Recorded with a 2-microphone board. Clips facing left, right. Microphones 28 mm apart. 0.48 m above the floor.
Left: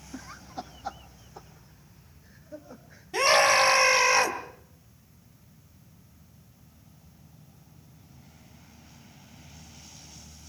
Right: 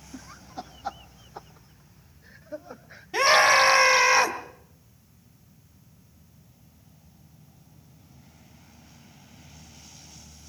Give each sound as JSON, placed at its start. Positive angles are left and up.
{"t": 0.1, "sound": "laughter", "side_deg": 25, "distance_m": 1.0}
{"t": 3.1, "sound": "a scream", "side_deg": -15, "distance_m": 4.5}